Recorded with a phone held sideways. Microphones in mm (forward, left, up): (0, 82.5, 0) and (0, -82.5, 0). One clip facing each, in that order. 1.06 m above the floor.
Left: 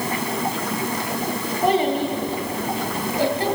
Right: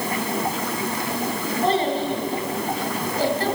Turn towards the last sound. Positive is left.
turn(degrees=15)  # may be behind; listen again after turning